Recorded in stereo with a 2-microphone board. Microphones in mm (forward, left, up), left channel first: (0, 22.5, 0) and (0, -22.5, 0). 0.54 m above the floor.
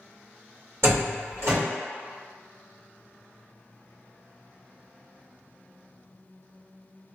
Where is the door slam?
60° right (ahead or behind), 1.4 m.